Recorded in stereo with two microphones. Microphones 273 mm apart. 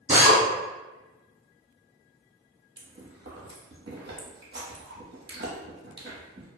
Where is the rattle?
No rattle in this recording.